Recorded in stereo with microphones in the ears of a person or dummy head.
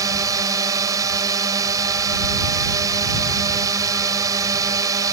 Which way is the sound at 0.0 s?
20° right (ahead or behind).